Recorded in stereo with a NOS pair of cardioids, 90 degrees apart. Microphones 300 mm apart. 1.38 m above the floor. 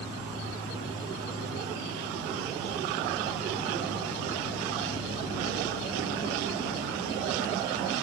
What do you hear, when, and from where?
0.0 s an insect: 10° left, 2.0 m